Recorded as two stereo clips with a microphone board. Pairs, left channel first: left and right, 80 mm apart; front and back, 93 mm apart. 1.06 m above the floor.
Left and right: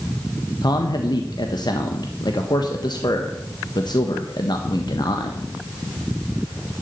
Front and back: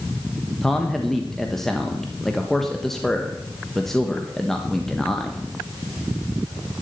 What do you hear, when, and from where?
0.6 s a man speaking: 85° left, 1.3 m